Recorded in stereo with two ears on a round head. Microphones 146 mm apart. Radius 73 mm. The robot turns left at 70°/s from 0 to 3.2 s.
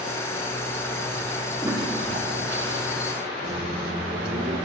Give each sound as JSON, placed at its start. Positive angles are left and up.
{"t": 1.6, "sound": "a toilet flushing", "azimuth_deg": -15, "distance_m": 1.2}
{"t": 3.4, "sound": "a microwave", "side_deg": -70, "distance_m": 1.8}